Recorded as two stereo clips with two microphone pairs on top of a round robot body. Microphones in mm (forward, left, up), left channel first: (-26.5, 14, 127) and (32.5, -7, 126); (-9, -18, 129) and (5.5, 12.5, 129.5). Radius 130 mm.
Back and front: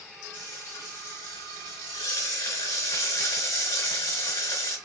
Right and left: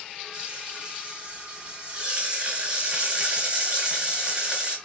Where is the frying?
130° left, 3 m.